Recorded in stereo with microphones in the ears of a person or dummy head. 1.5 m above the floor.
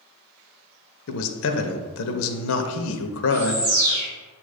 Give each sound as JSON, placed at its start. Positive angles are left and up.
{"t": 1.1, "sound": "a man speaking", "side_deg": 70, "distance_m": 0.8}
{"t": 3.3, "sound": "a bird", "side_deg": -60, "distance_m": 1.7}